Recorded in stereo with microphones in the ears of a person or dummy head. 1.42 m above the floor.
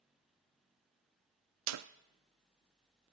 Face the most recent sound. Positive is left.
turn(degrees=-90)